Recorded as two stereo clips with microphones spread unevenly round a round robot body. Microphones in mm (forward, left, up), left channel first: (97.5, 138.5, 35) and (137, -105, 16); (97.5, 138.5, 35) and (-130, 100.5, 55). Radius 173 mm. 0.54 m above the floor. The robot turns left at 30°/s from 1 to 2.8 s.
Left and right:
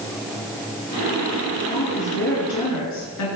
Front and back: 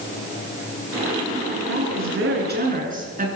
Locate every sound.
1.7 s a woman speaking: 170° left, 8.5 m; by 3.3 s 135° left, 8.5 m